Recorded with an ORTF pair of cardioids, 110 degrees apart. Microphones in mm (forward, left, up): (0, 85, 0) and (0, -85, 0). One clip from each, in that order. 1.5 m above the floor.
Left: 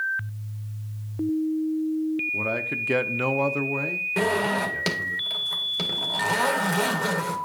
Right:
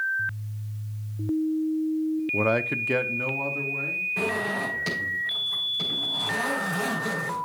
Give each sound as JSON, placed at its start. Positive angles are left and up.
{"t": 2.3, "sound": "a man speaking", "azimuth_deg": -40, "distance_m": 0.6}
{"t": 4.2, "sound": "a zipper", "azimuth_deg": 65, "distance_m": 1.7}